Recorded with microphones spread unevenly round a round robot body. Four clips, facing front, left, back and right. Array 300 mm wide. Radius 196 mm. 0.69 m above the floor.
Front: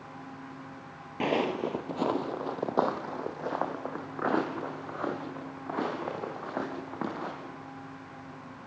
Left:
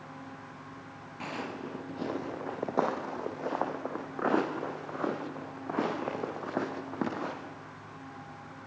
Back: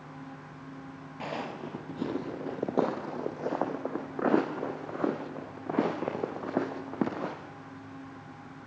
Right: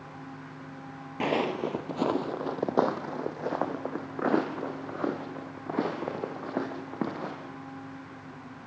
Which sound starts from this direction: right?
Footsteps, at 1.2 s.